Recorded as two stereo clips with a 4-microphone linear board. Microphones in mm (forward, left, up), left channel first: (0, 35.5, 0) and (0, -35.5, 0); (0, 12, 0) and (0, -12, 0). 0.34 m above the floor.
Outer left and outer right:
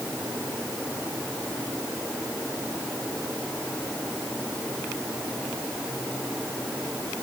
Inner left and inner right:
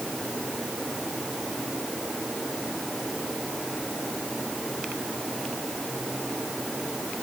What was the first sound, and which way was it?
Only background noise.